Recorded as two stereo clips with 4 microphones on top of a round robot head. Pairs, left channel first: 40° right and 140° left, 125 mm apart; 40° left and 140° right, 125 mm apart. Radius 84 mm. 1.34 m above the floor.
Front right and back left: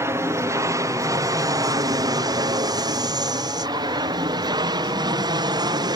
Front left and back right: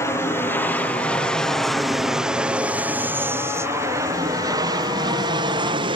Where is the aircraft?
90° left; by 6.0 s 175° right.